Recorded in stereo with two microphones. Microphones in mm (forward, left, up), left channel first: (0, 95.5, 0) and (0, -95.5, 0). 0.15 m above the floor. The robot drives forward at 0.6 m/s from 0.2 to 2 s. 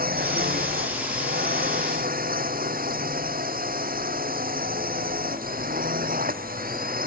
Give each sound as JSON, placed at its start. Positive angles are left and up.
{"t": 0.0, "sound": "a drone", "side_deg": -50}